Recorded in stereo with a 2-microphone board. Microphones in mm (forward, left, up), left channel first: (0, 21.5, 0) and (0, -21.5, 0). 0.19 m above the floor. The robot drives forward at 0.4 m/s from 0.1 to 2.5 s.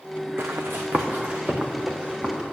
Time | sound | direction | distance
0.4 | running footsteps | 75° right (ahead or behind) | 1.1 m